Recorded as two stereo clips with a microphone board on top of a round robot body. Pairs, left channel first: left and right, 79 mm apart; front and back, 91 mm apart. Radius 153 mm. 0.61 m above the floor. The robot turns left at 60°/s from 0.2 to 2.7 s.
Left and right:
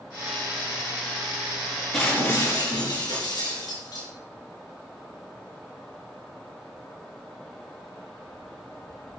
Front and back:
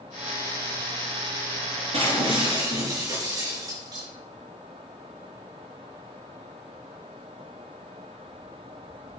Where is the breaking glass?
Straight behind, 4 m; by 4.1 s 130° left, 4 m.